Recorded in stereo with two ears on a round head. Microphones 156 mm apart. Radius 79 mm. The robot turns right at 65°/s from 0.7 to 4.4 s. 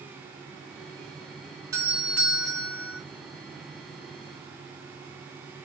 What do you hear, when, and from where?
1.7 s a doorbell: 20° right (ahead or behind), 1.0 m; by 3.0 s 15° left (ahead or behind), 1.0 m